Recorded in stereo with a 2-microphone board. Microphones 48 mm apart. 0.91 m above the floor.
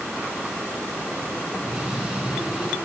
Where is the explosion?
15° right (ahead or behind), 3.5 m.